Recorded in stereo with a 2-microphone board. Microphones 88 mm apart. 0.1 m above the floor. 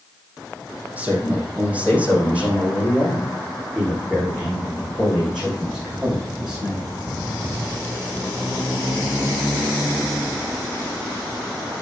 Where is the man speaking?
20° right (ahead or behind), 3.5 m; by 6.9 s 10° right (ahead or behind), 7.5 m.